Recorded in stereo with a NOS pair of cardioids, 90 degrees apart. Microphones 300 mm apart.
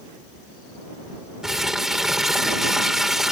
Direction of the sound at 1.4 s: Straight ahead.